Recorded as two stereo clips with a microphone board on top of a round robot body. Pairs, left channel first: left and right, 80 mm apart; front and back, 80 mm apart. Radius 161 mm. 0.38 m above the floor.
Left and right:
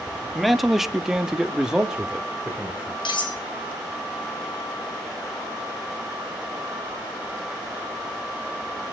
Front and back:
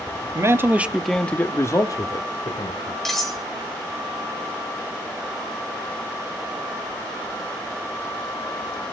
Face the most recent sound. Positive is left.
turn(degrees=90)